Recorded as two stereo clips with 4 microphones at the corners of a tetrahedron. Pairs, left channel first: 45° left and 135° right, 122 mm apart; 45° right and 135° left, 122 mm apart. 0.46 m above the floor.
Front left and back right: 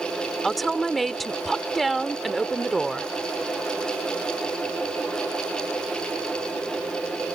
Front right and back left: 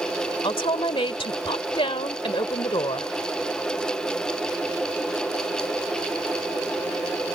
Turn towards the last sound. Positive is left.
turn(degrees=-45)